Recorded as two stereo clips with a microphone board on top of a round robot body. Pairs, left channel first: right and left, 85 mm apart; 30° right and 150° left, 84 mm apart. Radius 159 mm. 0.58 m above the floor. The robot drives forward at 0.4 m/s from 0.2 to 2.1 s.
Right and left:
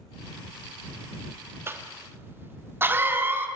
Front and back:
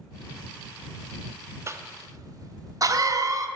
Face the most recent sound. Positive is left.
turn(degrees=140)